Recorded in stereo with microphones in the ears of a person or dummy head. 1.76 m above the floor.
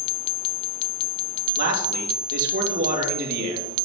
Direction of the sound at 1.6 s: 55° right (ahead or behind).